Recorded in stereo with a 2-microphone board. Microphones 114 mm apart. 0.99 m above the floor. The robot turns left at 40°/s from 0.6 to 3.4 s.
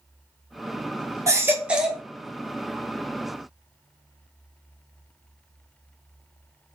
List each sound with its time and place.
1.3 s a baby crying: 150° right, 0.8 m; by 2.0 s straight behind, 0.8 m